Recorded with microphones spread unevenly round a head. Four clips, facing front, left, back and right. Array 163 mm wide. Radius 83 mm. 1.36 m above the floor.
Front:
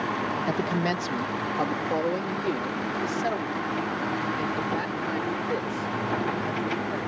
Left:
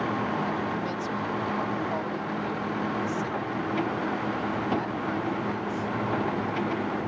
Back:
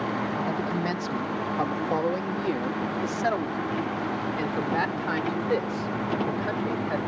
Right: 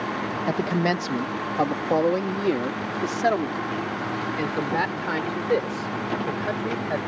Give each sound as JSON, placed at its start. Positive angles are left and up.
{"t": 0.5, "sound": "a man speaking", "azimuth_deg": -70}